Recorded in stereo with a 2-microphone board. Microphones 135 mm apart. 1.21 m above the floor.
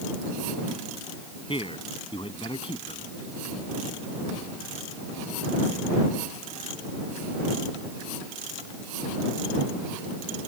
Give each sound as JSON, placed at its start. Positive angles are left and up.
{"t": 1.5, "sound": "a man speaking", "side_deg": 40}